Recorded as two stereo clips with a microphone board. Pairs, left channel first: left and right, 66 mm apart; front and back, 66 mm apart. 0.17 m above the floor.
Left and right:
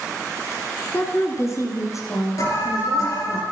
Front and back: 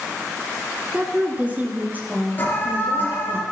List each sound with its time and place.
0.9 s a woman speaking: 115° left, 1.6 m; by 3.4 s 120° left, 5 m
2.4 s an alarm: 60° left, 3.5 m